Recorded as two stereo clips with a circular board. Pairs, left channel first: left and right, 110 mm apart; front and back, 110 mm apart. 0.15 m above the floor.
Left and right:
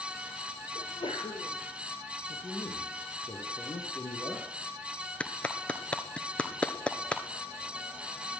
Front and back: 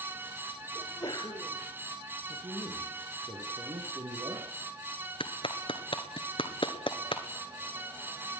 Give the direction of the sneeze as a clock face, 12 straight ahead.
10 o'clock.